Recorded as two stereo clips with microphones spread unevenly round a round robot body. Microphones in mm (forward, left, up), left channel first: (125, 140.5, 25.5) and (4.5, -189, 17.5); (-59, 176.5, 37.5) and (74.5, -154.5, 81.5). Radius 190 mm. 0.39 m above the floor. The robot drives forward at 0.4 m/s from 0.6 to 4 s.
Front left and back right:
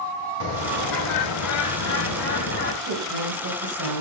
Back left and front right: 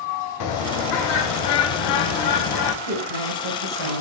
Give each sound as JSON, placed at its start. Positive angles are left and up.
{"t": 0.4, "sound": "a bird", "azimuth_deg": 105, "distance_m": 1.1}
{"t": 2.8, "sound": "a woman speaking", "azimuth_deg": -70, "distance_m": 4.0}